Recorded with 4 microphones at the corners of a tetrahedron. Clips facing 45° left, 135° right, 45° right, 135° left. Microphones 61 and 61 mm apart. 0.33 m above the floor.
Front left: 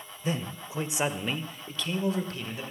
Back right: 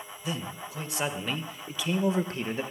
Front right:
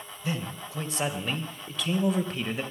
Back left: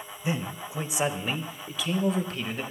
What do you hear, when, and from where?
0.2 s a man speaking: 75° left, 1.2 m; by 2.6 s 120° right, 1.1 m